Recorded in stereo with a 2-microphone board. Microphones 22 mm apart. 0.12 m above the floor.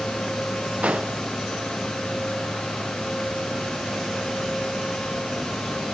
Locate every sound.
0.8 s an explosion: 85° right